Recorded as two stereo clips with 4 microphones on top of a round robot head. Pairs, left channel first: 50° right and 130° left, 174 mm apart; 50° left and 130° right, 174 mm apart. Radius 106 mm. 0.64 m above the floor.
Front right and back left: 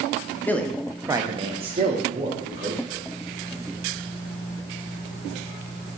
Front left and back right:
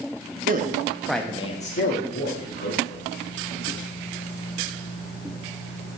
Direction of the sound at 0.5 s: 125° right.